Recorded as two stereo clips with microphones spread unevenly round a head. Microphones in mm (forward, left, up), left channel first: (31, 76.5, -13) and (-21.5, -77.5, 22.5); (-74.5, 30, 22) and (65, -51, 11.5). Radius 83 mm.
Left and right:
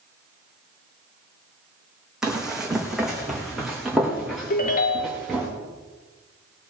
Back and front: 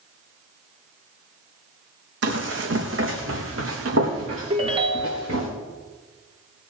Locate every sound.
2.2 s running footsteps: 30° right, 3 m; by 5.5 s 20° right, 5.5 m
4.5 s a ringtone: 30° left, 1.5 m